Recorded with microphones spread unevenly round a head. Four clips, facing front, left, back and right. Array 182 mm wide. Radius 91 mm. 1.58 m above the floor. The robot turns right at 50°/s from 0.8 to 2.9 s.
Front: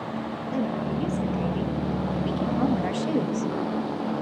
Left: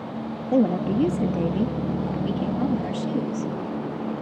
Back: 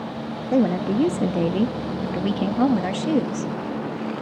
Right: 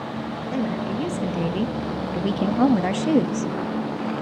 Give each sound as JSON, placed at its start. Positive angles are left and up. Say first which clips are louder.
{"t": 0.5, "sound": "a woman speaking", "louder": "left 6 dB, back 9 dB", "azimuth_deg": 150, "distance_m": 0.7}